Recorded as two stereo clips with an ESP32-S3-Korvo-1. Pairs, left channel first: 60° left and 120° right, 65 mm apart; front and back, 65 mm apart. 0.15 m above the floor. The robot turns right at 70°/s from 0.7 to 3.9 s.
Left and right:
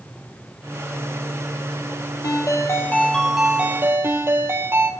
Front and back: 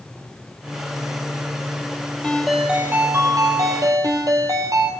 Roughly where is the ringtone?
Left.